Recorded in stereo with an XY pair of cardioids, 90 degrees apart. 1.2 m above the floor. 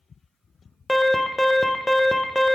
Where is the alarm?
10° left, 0.6 m.